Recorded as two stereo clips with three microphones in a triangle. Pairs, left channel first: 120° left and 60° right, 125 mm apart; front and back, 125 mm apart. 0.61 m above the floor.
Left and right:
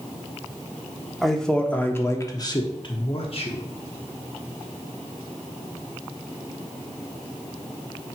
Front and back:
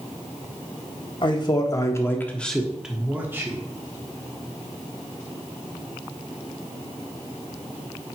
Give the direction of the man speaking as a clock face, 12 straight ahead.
11 o'clock.